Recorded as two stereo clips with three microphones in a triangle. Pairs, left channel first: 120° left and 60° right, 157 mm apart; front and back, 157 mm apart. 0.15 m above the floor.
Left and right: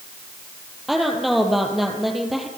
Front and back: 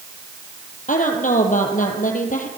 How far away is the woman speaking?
About 4 m.